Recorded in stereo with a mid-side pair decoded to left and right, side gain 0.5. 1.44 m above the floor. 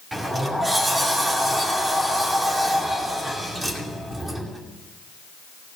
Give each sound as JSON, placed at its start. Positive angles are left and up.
{"t": 0.1, "sound": "a sliding door", "azimuth_deg": -20, "distance_m": 2.5}